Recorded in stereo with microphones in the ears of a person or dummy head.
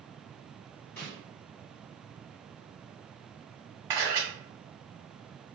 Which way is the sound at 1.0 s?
10° left (ahead or behind).